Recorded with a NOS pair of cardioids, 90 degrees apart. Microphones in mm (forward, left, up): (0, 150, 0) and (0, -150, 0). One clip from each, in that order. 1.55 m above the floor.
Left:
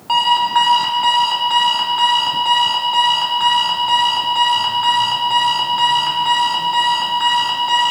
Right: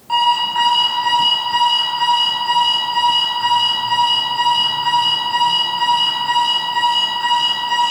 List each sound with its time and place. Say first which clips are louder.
0.1 s an alarm clock: left 1 dB; 50° left, 3 m